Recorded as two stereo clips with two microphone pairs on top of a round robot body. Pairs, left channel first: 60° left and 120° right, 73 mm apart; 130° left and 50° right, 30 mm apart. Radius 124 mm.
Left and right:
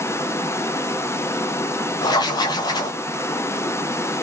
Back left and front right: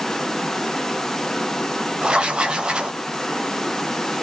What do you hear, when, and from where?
0.0 s running water: 40° left, 1.0 m
2.0 s writing: 25° left, 0.6 m